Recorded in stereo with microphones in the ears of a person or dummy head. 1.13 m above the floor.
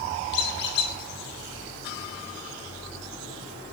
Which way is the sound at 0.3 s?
60° left (ahead or behind).